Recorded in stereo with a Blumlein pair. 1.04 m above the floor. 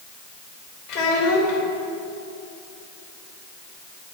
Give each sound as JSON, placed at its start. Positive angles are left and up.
{"t": 0.9, "sound": "a child speaking", "azimuth_deg": 35, "distance_m": 2.5}